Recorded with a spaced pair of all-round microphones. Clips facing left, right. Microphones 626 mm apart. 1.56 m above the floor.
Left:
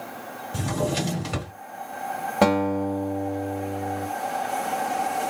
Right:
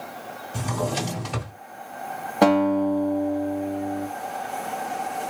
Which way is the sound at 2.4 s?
35° left (ahead or behind).